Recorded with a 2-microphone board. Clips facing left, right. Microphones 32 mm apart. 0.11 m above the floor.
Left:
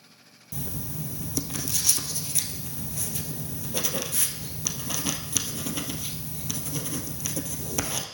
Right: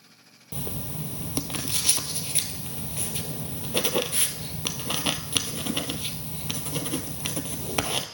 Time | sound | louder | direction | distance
0.5 | writing | right 1 dB | 40° right (ahead or behind) | 0.7 m